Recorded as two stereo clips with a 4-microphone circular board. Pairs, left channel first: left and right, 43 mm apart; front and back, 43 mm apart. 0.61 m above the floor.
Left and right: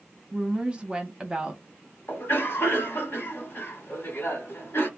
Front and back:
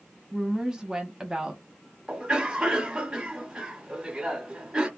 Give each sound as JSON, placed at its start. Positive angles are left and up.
{"t": 0.3, "sound": "a woman speaking", "azimuth_deg": -130, "distance_m": 1.0}
{"t": 2.1, "sound": "a cough", "azimuth_deg": 110, "distance_m": 1.5}